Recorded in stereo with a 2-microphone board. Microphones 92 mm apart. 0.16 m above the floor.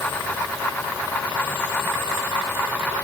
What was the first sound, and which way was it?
Only background noise.